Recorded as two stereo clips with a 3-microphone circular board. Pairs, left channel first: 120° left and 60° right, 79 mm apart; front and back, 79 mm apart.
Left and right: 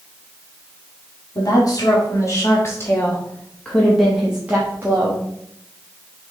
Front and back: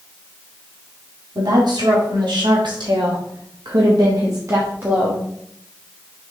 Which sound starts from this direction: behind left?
A woman speaking, at 1.4 s.